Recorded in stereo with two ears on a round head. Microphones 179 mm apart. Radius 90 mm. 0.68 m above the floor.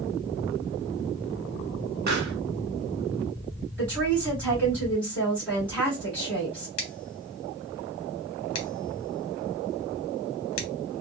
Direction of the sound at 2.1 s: 50° right (ahead or behind).